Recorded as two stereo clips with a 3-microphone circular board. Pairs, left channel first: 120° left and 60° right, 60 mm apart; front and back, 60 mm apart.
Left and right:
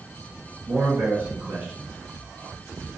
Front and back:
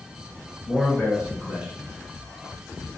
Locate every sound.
0.7 s a man speaking: 100° right, 1.9 m; by 2.9 s 145° left, 1.3 m